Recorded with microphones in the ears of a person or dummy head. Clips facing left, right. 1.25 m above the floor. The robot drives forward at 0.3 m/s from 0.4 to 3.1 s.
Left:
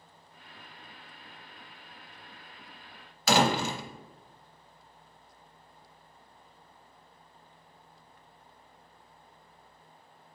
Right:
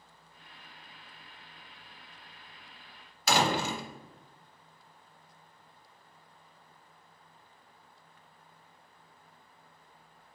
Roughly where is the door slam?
Left.